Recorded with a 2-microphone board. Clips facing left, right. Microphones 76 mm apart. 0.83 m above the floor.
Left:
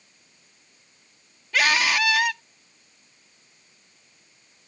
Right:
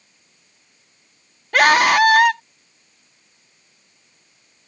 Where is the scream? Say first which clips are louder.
Right 9 dB; 60° right (ahead or behind).